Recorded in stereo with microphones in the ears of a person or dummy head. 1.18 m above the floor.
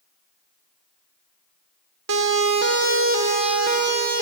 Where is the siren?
85° right, 3.5 m; by 4.2 s 60° right (ahead or behind), 4 m.